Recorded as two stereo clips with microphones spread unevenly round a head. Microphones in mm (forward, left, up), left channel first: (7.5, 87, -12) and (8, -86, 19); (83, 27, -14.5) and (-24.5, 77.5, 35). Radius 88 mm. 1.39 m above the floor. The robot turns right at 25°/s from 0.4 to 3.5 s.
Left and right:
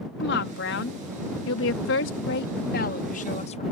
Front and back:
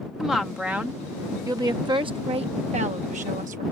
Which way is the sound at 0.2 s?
65° left.